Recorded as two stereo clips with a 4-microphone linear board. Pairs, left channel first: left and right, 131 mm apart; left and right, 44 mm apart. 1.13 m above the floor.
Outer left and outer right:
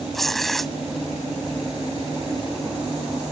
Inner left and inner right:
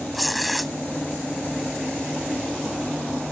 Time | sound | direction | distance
0.1 | tearing paper | centre (ahead or behind) | ?